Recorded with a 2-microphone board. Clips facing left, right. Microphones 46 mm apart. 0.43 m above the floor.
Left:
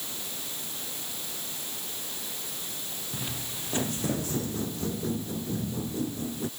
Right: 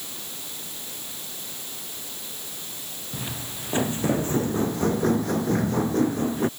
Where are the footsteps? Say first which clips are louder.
Right 4 dB; 15° right (ahead or behind); by 6.5 s 55° right (ahead or behind).